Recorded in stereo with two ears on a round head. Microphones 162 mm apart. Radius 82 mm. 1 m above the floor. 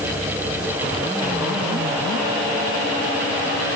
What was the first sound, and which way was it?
Only background noise.